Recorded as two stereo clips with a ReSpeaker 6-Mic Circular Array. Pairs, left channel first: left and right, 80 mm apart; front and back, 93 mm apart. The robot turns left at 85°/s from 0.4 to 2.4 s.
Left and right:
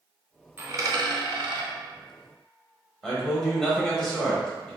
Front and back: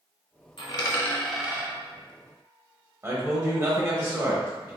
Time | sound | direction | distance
0.6 | a dropped coin | 25° right | 0.8 m
3.0 | a man speaking | 170° left | 1.0 m